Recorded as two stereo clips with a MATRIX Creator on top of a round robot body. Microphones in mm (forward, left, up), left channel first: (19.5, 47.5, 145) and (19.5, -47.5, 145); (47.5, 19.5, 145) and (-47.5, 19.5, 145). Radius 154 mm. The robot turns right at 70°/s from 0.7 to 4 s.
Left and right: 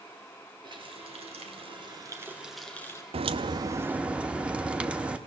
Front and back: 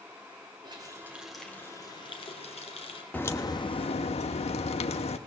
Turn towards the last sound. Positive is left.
turn(degrees=-15)